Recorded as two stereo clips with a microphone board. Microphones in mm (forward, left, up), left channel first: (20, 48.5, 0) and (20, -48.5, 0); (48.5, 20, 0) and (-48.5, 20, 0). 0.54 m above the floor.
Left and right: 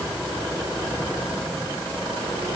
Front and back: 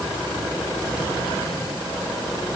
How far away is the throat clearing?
No throat clearing in this recording.